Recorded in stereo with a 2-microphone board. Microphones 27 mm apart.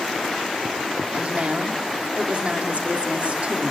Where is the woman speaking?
50° right (ahead or behind), 2.5 m.